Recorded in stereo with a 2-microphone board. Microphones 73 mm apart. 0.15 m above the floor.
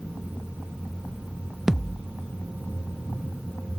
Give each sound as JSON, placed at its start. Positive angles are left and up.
{"t": 1.7, "sound": "a thud", "side_deg": -5}